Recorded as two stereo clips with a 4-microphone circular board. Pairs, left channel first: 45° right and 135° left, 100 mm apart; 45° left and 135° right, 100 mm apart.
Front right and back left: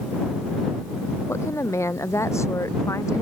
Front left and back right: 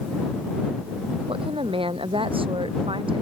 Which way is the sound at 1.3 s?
110° right.